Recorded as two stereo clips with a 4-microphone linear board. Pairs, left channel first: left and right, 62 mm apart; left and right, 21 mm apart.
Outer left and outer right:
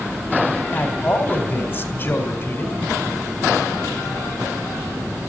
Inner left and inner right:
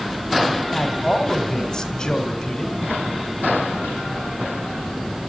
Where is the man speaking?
40° left (ahead or behind), 1.7 m.